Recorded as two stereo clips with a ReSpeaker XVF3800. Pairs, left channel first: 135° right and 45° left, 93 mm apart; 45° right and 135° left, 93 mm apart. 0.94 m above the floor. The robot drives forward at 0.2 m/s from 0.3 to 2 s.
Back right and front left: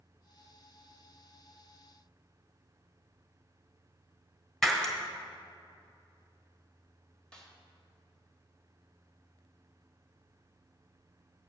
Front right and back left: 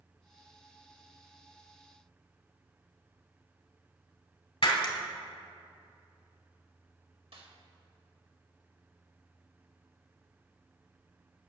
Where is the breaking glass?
50° right, 1.3 m.